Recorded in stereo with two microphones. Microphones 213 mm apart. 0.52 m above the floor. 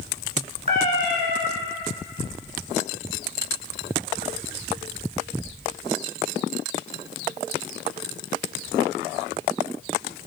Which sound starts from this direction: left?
A cat meowing, at 0.7 s.